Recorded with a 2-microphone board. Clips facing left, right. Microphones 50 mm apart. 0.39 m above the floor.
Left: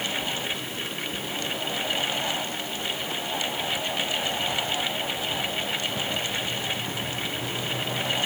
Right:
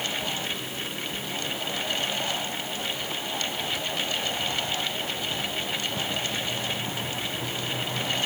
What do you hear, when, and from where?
Only background noise.